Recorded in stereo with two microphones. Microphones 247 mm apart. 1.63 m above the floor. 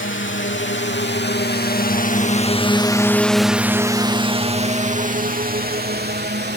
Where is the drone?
55° left (ahead or behind); by 6.6 s 45° right (ahead or behind).